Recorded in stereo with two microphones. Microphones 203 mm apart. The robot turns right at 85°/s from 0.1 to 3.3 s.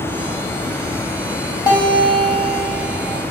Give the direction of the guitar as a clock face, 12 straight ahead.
11 o'clock.